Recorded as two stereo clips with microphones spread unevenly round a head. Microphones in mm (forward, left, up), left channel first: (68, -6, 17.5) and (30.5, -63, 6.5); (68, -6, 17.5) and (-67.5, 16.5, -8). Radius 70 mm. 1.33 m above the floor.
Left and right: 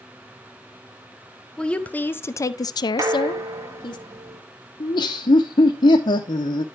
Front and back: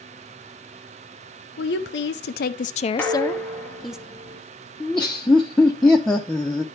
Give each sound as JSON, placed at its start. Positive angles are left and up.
{"t": 1.6, "sound": "a woman speaking", "azimuth_deg": -25, "distance_m": 0.8}
{"t": 3.0, "sound": "dishes clattering", "azimuth_deg": -80, "distance_m": 1.3}
{"t": 4.8, "sound": "laughter", "azimuth_deg": 75, "distance_m": 0.7}